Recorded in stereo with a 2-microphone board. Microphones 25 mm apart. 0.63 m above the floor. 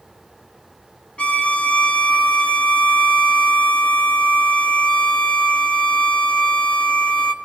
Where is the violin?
50° left (ahead or behind), 0.9 m.